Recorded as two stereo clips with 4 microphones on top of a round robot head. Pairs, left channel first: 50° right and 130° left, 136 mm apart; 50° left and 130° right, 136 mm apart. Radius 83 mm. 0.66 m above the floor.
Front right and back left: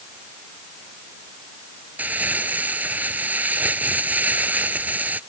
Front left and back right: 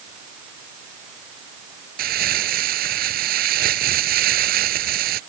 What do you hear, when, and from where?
2.0 s crumpling: 150° right